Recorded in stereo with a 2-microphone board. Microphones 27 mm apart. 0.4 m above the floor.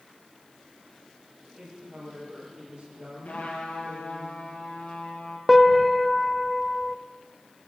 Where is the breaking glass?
I don't hear breaking glass.